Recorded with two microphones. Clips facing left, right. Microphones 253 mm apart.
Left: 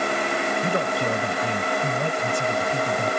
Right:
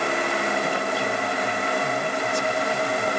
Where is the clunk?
I don't hear a clunk.